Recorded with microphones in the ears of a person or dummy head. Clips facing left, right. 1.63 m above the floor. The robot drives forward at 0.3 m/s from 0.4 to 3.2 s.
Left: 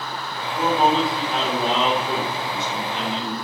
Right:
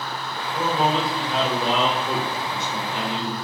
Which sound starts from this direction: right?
A man speaking, at 0.5 s.